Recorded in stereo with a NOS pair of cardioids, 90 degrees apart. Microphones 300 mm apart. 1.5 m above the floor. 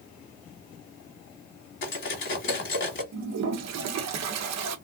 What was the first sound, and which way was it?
Cutlery clinking, 40° left.